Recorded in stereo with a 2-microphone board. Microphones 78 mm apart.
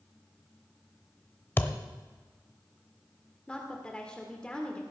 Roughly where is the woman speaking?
Centre.